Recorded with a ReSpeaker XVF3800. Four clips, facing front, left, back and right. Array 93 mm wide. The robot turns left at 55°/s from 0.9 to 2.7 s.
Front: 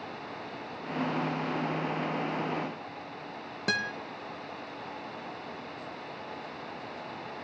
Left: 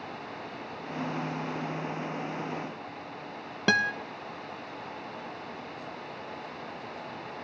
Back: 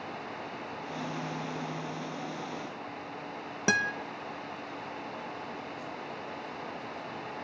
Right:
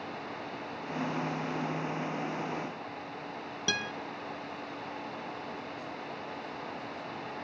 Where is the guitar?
110° left, 0.8 m.